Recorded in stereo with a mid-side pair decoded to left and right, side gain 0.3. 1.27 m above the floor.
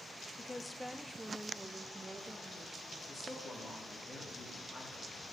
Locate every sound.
0.4 s a woman speaking: 40° left, 0.6 m; by 3.0 s 35° right, 1.8 m
3.1 s a man speaking: 55° left, 3 m